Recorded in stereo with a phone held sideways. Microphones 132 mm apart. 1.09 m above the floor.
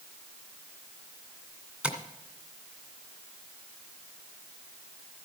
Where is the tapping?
10° right (ahead or behind), 2.0 m.